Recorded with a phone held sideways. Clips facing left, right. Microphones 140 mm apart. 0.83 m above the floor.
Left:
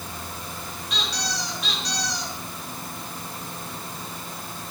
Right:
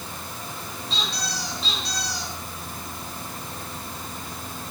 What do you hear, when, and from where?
0.9 s a squeak: 30° right (ahead or behind), 5 m